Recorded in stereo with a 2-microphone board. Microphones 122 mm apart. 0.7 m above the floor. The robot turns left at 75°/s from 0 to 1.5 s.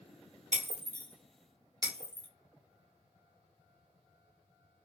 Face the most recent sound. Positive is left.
turn(degrees=-30)  # may be behind; listen again after turning